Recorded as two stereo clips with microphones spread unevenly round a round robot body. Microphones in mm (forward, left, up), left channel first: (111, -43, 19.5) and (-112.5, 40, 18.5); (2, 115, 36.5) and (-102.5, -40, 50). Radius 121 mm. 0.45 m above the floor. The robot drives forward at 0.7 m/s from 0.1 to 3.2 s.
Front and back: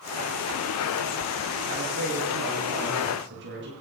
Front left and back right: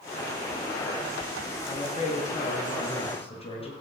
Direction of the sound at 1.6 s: 105° left.